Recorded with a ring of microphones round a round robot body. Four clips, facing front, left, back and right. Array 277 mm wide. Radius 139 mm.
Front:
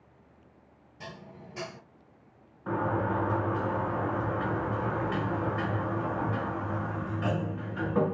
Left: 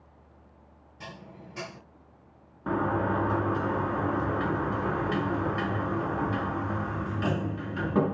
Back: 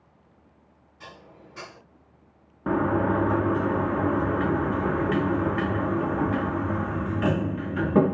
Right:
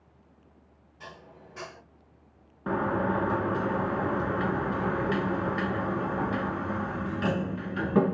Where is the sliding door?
170° right, 1.3 m.